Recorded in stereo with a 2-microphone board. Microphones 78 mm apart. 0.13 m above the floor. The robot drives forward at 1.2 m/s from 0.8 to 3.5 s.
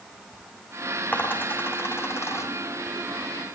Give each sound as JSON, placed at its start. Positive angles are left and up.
{"t": 1.1, "sound": "a dropped coin", "side_deg": 25, "distance_m": 4.0}